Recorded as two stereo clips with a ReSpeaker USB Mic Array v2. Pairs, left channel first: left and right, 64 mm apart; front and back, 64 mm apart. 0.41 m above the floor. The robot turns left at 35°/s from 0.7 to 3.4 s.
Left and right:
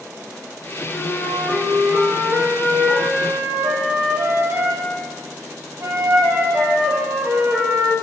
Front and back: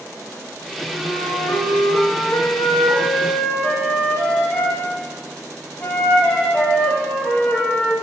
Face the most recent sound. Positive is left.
turn(degrees=-60)